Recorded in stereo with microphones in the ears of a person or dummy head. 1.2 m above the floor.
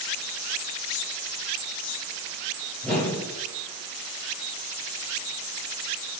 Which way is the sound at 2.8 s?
10° left (ahead or behind).